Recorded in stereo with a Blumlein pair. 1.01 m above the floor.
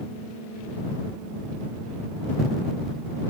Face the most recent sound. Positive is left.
No sound to turn to.